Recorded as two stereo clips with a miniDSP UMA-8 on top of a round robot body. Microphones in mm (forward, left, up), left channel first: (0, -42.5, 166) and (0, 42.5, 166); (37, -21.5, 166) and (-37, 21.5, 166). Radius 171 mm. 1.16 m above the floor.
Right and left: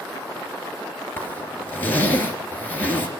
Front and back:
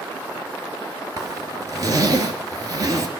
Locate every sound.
1.2 s a zipper: 160° right, 3 m